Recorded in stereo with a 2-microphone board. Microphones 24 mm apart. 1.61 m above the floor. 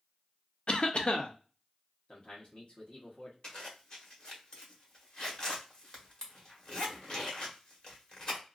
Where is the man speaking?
50° left (ahead or behind), 1.2 m.